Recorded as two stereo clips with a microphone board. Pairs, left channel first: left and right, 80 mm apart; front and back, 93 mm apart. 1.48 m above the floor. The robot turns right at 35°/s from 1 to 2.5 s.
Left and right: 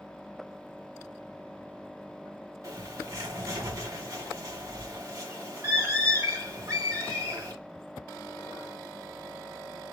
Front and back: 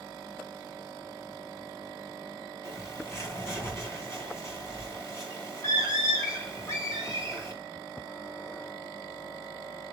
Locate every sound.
2.6 s a bird: 55° right, 2 m